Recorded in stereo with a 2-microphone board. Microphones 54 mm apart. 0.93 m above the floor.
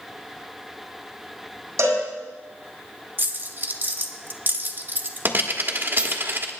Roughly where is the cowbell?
Right.